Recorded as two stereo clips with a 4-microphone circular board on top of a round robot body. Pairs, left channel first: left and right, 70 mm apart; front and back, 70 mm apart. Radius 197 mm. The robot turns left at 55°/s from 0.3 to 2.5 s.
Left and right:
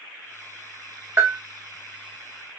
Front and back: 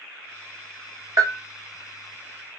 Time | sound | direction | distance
1.2 | a bell | 140° right | 1.1 m